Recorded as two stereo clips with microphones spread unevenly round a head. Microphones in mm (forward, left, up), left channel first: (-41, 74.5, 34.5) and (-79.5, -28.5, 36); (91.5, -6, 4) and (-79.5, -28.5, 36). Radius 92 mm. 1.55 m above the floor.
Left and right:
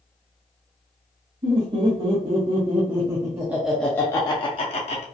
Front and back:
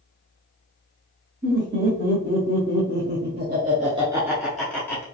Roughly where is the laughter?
Behind right.